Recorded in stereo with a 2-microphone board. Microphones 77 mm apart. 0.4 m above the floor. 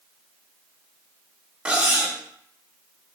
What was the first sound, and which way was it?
Cutlery clinking, 15° right (ahead or behind).